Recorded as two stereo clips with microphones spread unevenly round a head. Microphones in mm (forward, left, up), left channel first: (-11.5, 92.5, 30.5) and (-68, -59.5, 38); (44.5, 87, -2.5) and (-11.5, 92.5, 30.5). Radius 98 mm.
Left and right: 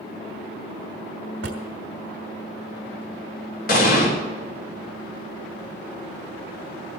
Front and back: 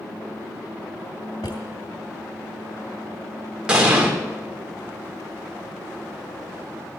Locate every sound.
1.4 s a drawer: 75° right, 2 m
3.7 s an explosion: 100° left, 3.5 m